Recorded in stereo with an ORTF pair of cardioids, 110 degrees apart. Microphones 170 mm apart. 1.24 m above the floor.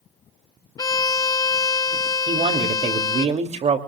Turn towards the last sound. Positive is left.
turn(degrees=-40)